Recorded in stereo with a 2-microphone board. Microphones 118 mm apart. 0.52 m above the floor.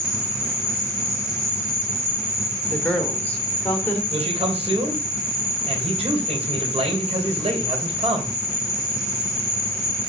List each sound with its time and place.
0.0 s an insect: 5° right (ahead or behind), 3.5 m
2.7 s a woman speaking: 15° left (ahead or behind), 1.7 m
4.1 s a man speaking: 60° right (ahead or behind), 2.5 m